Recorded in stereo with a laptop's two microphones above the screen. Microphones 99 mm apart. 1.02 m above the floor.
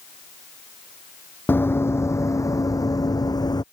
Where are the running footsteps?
25° left (ahead or behind); by 3.6 s 45° left (ahead or behind).